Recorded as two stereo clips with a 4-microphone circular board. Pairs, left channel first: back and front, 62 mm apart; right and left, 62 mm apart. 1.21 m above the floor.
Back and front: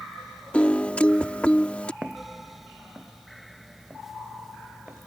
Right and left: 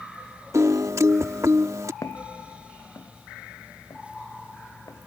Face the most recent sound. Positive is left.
turn(degrees=-75)